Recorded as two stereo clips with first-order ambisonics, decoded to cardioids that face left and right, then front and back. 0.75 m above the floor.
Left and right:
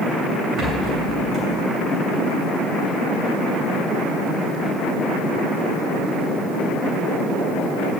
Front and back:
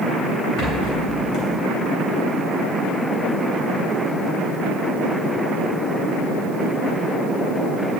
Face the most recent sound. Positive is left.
turn(degrees=-30)